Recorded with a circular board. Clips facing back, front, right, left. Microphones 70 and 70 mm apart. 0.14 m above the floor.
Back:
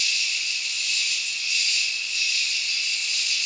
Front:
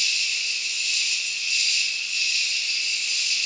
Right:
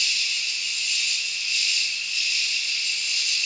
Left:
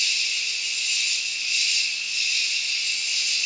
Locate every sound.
0.0 s an insect: 165° left, 1.0 m